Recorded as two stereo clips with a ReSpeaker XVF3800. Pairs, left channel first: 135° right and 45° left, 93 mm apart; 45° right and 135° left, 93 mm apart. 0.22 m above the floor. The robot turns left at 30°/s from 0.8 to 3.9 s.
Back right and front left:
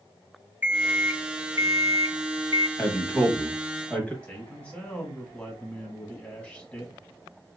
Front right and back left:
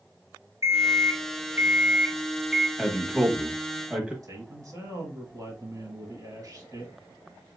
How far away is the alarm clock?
About 0.6 m.